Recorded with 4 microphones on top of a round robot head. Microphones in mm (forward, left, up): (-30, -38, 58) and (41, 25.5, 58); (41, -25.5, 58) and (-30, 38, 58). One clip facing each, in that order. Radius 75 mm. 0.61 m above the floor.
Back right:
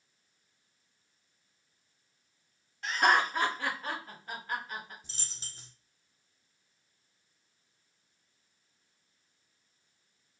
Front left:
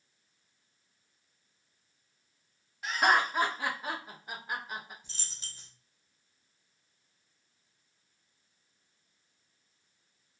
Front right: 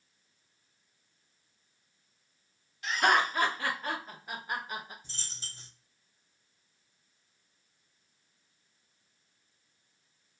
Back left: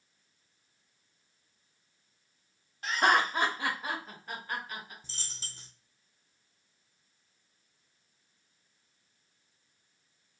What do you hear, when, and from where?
2.8 s laughter: 120° left, 1.1 m; by 4.9 s 20° right, 0.9 m
5.0 s a dropped coin: 160° left, 0.9 m